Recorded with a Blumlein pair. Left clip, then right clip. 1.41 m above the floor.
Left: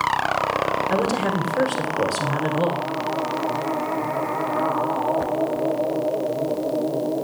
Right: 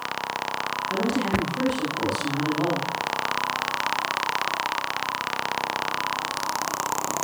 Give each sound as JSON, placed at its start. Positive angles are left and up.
{"t": 0.9, "sound": "a woman speaking", "azimuth_deg": 55, "distance_m": 1.5}